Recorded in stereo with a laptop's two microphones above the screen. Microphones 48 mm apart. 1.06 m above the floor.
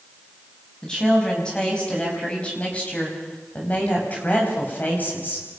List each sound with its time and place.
0.8 s a woman speaking: 15° left (ahead or behind), 7 m; by 5.5 s 40° left (ahead or behind), 6.5 m